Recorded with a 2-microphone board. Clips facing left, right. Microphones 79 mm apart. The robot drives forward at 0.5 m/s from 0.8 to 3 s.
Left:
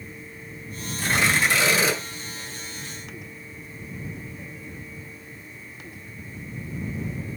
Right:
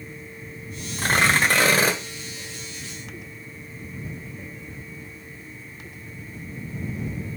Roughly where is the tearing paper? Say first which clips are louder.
Right 2 dB; right.